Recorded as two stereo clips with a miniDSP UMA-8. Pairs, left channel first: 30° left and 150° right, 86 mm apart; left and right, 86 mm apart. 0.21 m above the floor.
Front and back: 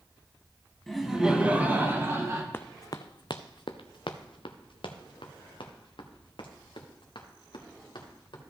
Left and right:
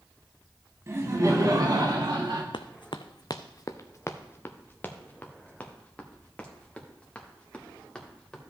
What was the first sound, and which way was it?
Laughter, 55° right.